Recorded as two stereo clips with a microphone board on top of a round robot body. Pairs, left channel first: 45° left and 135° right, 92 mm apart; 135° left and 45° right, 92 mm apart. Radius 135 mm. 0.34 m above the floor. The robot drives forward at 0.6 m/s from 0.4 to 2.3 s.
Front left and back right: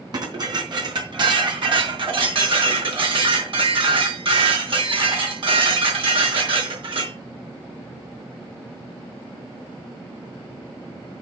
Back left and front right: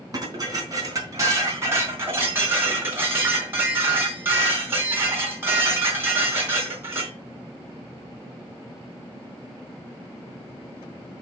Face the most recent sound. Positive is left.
turn(degrees=-110)